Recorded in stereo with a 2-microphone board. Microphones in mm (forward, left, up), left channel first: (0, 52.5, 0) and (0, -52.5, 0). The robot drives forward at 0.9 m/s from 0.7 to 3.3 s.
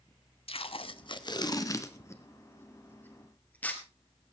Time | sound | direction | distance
0.5 | tape being pulled | 60° left (ahead or behind) | 0.8 m